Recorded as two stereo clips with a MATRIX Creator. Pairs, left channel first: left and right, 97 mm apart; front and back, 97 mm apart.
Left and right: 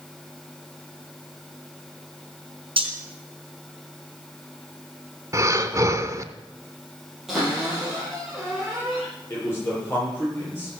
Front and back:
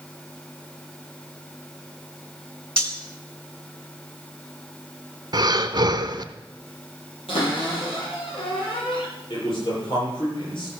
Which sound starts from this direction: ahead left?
A man speaking, at 9.3 s.